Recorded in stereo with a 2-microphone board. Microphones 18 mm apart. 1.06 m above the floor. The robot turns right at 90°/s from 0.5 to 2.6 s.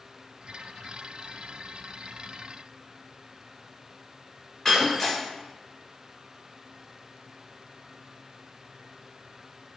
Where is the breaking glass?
30° left (ahead or behind), 1.6 m.